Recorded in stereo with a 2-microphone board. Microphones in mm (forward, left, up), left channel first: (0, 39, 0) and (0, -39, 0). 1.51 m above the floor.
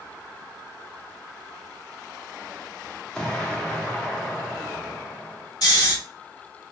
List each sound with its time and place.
3.1 s an explosion: 10° left (ahead or behind), 0.8 m
5.6 s snoring: 55° left (ahead or behind), 2 m